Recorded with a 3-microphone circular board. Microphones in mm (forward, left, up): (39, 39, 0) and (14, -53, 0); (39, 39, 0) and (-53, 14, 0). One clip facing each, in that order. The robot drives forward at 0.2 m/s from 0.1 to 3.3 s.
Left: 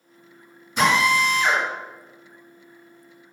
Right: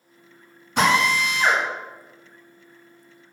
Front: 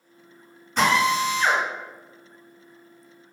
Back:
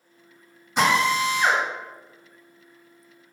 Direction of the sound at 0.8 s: 90° right.